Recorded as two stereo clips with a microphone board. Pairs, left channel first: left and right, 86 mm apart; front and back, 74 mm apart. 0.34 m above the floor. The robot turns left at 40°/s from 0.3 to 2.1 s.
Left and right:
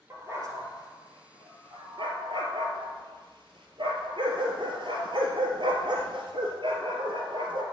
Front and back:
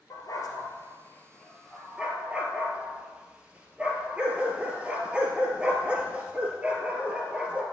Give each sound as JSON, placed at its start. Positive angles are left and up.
{"t": 0.1, "sound": "a dog barking", "azimuth_deg": -35, "distance_m": 2.5}